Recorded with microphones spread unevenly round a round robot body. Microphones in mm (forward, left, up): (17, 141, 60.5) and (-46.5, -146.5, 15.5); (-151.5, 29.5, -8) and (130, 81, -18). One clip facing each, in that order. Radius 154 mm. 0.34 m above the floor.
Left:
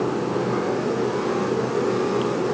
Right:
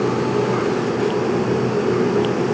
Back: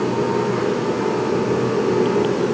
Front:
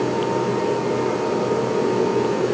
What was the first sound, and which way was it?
Only background noise.